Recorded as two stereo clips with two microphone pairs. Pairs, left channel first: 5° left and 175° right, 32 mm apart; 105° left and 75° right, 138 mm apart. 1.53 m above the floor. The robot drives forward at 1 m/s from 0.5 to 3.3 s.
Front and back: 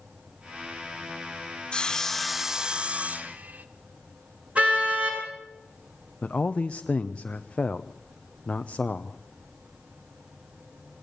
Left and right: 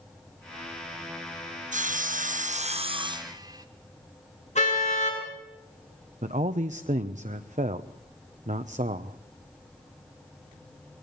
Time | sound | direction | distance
1.7 | sawing | 55° right | 1.1 m
4.5 | a car horn | 140° left | 9.5 m
6.2 | a man speaking | 45° right | 0.9 m